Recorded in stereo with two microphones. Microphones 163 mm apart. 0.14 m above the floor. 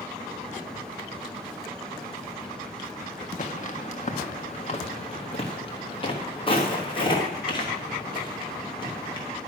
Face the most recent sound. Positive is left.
turn(degrees=25)  # may be behind; listen again after turning